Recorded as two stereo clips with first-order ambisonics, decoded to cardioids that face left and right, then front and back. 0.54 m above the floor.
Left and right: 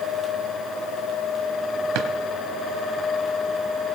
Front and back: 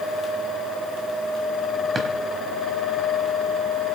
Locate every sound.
1.9 s a drawer: 105° right, 1.2 m